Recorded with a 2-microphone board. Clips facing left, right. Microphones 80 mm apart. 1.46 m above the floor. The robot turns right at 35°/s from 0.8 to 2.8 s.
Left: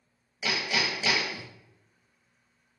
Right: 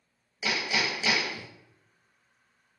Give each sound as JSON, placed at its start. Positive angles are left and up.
{"t": 0.4, "sound": "hammering", "side_deg": -15, "distance_m": 0.9}